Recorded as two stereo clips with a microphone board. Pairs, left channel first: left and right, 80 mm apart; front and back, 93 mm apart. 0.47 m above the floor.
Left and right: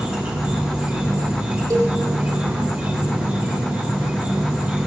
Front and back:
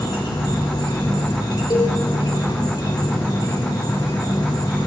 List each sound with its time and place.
0.0 s an insect: 25° right, 2 m
1.7 s a cowbell: 45° right, 3.5 m